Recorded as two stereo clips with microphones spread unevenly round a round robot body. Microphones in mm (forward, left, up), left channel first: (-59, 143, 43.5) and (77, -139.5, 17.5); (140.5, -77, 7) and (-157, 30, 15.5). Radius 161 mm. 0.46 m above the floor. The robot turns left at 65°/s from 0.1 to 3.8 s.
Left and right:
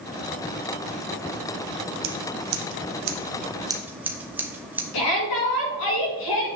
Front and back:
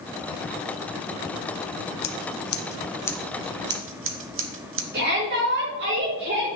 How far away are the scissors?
About 0.9 m.